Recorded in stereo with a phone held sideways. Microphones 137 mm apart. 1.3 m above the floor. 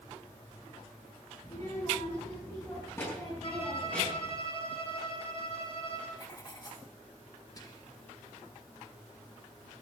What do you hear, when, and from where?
1.4 s a child speaking: 30° left (ahead or behind), 7 m; by 4.3 s 10° left (ahead or behind), 8 m
3.4 s a violin: 40° left (ahead or behind), 8.5 m
6.2 s writing: 30° left (ahead or behind), 3 m
7.6 s whispering: 25° left (ahead or behind), 1.7 m